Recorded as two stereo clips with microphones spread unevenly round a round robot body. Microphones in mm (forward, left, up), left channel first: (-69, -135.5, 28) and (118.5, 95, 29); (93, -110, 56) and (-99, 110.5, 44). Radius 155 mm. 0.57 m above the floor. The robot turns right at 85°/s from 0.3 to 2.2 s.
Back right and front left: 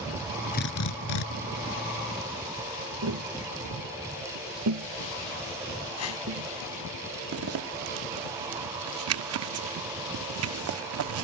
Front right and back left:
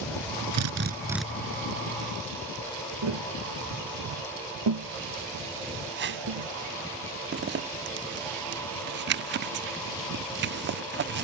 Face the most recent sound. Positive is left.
turn(degrees=85)